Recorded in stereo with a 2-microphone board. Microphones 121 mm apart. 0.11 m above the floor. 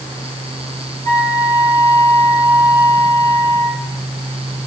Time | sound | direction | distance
1.1 | a flute | 30° left (ahead or behind) | 1.6 m